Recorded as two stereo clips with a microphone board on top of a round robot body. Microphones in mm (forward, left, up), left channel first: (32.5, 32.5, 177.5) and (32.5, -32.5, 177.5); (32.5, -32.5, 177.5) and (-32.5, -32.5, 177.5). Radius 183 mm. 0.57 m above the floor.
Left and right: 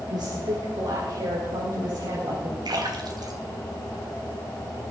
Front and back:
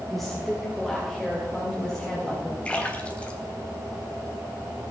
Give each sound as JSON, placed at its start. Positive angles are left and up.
{"t": 0.1, "sound": "a woman speaking", "azimuth_deg": -90, "distance_m": 2.5}
{"t": 2.6, "sound": "a splash", "azimuth_deg": -75, "distance_m": 2.5}